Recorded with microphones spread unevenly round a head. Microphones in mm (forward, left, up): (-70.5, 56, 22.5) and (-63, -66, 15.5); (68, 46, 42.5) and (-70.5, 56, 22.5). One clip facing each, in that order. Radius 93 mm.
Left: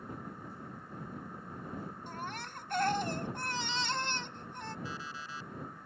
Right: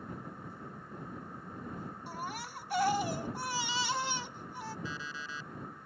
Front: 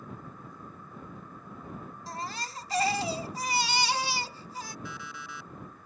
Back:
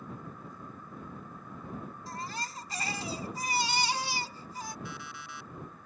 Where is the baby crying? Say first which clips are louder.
Right 1 dB, front 3 dB; straight ahead.